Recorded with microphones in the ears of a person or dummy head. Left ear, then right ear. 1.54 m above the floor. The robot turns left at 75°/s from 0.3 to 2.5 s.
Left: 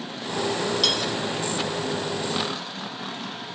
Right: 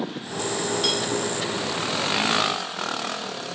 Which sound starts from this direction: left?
Cutlery clinking, at 0.8 s.